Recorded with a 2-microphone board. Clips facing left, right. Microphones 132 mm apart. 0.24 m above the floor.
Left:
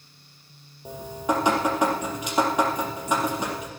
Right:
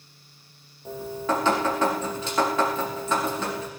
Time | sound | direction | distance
0.8 | dripping | 15° left (ahead or behind) | 4 m